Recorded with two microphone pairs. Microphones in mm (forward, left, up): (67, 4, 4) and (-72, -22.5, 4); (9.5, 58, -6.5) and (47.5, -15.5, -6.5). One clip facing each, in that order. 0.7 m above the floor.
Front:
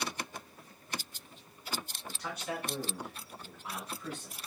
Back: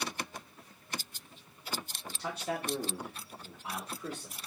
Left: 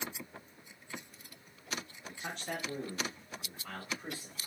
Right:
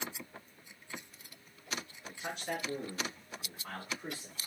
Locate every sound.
2.1 s a man speaking: 165° right, 0.6 m; by 4.3 s 110° right, 1.6 m